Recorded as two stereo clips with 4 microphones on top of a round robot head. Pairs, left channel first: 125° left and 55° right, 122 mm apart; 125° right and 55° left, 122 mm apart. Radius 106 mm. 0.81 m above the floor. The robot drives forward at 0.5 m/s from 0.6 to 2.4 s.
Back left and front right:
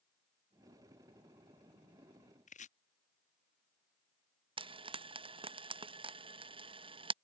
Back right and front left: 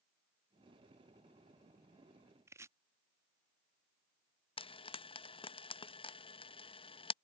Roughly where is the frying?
Right.